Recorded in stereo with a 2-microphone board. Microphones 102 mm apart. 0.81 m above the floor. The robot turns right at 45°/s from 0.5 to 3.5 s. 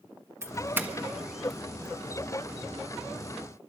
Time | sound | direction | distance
0.4 | a doorbell | 25° right (ahead or behind) | 1.4 m